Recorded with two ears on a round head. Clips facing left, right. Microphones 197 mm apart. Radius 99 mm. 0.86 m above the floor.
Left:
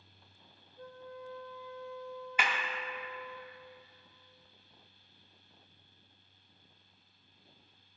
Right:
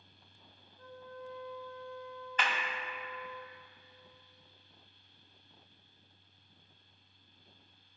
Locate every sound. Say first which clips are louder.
0.8 s a flute: left 1 dB; 35° left (ahead or behind), 0.7 m
2.4 s a clap: even; 10° left (ahead or behind), 0.7 m